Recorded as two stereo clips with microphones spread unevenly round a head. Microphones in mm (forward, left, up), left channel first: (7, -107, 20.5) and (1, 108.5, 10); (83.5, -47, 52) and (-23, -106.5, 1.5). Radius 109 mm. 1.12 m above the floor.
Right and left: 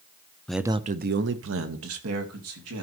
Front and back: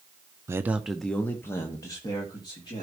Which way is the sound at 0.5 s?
175° right.